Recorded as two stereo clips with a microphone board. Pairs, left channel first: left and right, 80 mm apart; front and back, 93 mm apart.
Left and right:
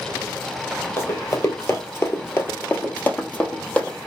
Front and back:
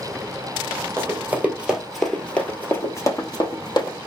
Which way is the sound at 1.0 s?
130° left.